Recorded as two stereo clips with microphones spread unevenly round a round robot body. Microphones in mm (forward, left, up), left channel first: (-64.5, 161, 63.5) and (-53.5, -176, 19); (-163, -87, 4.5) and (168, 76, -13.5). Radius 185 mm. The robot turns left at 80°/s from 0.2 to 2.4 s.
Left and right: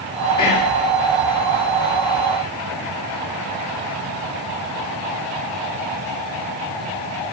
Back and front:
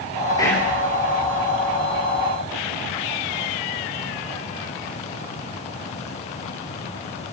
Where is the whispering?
125° left, 2 m; by 0.7 s 100° left, 2 m.